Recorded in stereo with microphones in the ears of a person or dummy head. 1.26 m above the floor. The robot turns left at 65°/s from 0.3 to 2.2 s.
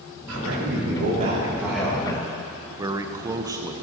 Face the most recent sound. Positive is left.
turn(degrees=-15)  # may be behind; listen again after turning